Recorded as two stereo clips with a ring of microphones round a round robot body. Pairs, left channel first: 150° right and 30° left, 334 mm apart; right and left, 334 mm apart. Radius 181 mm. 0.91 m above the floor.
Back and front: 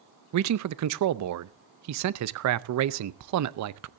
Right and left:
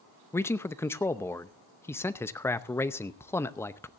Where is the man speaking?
5° right, 0.7 m.